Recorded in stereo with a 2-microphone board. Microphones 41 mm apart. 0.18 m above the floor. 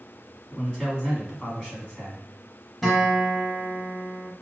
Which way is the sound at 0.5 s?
20° left (ahead or behind).